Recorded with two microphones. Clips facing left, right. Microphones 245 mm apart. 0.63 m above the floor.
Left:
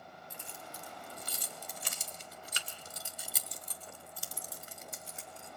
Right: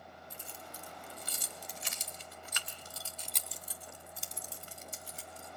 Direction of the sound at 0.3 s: 80° left.